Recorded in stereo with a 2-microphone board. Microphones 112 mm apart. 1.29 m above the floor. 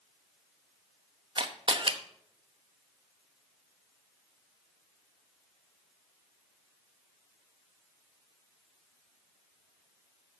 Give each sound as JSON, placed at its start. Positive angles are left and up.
{"t": 1.4, "sound": "a camera shutter", "side_deg": -50, "distance_m": 0.9}